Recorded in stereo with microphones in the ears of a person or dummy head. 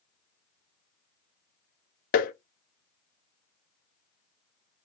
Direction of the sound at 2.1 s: 40° left (ahead or behind).